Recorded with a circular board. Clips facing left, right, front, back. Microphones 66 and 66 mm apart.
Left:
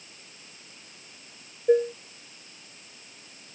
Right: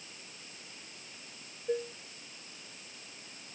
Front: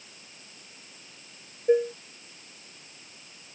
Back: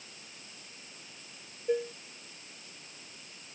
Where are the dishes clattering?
55° left.